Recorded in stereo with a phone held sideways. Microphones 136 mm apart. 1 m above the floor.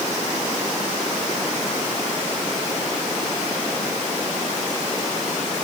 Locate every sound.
Only background noise.